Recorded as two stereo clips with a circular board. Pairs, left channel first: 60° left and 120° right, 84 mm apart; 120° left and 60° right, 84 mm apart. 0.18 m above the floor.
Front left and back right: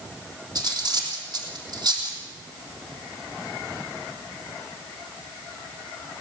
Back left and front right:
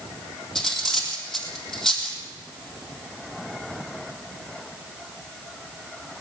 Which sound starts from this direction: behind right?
Cutlery clinking, at 0.6 s.